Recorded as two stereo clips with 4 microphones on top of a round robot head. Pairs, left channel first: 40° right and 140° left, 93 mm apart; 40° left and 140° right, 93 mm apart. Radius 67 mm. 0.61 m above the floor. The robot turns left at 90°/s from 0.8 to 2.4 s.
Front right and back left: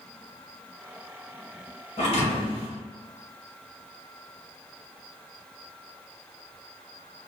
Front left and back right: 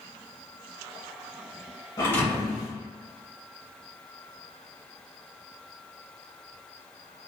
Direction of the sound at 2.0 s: 15° right.